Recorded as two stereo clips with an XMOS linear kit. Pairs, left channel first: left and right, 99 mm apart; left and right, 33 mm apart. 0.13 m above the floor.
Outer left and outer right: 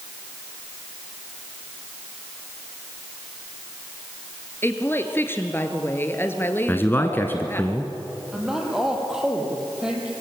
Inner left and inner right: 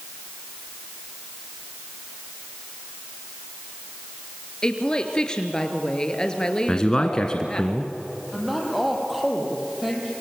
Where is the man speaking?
20° left (ahead or behind), 1.5 m.